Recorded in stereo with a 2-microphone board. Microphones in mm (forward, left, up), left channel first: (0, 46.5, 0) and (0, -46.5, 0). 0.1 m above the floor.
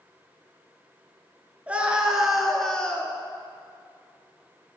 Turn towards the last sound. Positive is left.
turn(degrees=15)  # may be behind; listen again after turning